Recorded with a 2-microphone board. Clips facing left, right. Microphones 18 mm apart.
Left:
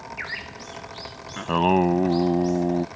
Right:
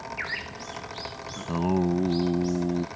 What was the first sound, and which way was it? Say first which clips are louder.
Singing: left 6 dB; 60° left (ahead or behind).